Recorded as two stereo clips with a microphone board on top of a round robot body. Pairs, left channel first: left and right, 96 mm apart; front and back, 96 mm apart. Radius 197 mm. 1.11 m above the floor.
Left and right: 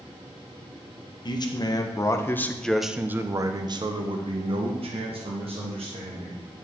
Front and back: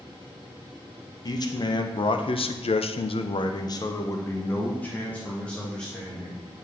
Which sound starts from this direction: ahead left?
A man speaking, at 1.2 s.